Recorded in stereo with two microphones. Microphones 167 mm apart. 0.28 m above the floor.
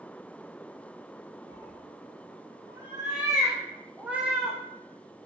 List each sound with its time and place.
1.5 s a cat meowing: 40° right (ahead or behind), 4 m; by 4.6 s centre (ahead or behind), 3 m